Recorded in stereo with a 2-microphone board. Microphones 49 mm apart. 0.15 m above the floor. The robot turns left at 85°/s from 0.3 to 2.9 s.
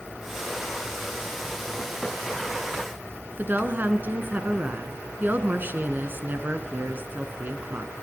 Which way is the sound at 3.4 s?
40° right (ahead or behind).